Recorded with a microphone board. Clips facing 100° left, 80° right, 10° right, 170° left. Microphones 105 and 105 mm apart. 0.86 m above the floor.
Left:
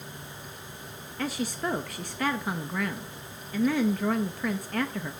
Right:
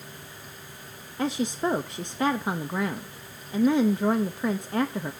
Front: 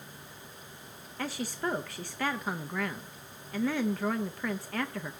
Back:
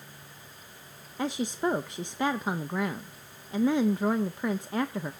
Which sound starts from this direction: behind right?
A woman speaking, at 1.2 s.